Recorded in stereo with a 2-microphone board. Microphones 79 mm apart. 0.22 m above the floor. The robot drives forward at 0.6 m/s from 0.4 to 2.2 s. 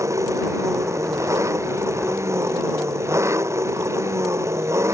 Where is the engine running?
40° right (ahead or behind); by 4.9 s 35° right (ahead or behind).